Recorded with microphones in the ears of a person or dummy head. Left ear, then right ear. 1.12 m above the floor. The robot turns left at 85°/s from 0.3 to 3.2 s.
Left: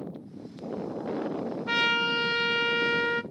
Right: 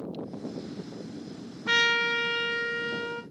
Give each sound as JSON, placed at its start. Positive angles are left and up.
{"t": 1.7, "sound": "a trumpet", "azimuth_deg": -145, "distance_m": 0.6}